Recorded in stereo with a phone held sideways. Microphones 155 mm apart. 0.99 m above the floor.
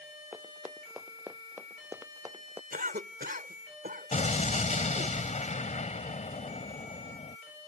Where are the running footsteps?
10° right (ahead or behind); by 2.6 s 15° right (ahead or behind).